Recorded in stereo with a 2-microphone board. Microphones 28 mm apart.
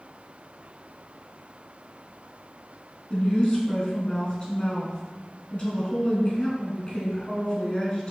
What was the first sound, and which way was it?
A woman speaking, 35° left (ahead or behind).